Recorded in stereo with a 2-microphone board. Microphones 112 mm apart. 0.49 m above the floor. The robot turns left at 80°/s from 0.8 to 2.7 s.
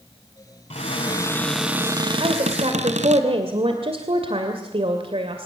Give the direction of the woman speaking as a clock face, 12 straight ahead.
2 o'clock.